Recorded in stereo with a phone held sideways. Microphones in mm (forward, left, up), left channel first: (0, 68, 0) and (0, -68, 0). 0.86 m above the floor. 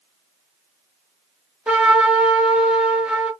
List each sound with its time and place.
1.7 s a trumpet: 10° right (ahead or behind), 1.1 m